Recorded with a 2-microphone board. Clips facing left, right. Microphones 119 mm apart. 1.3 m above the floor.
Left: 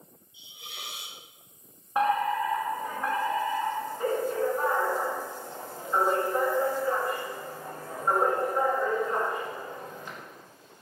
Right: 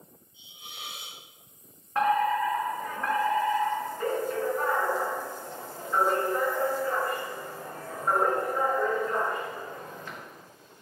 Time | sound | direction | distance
0.3 | a hiss | 80° left | 1.7 m
1.9 | a fire alarm | 15° left (ahead or behind) | 2.5 m